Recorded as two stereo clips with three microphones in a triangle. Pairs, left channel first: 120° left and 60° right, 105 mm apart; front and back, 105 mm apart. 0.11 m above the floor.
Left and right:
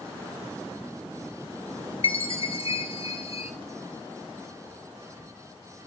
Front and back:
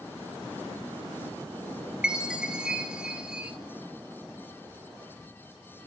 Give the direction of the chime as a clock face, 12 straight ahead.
9 o'clock.